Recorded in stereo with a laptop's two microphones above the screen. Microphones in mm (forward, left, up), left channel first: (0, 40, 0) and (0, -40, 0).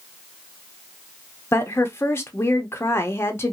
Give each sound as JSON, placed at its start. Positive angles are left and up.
{"t": 1.5, "sound": "a woman speaking", "side_deg": 30, "distance_m": 0.8}